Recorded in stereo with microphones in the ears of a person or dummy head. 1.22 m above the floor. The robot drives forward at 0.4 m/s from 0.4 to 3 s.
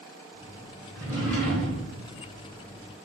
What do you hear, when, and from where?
0.9 s a drawer: 10° left (ahead or behind), 1.4 m; by 1.9 s 15° left (ahead or behind), 1.2 m